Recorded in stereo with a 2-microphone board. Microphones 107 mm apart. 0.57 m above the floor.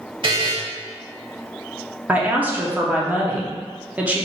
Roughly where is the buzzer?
Right.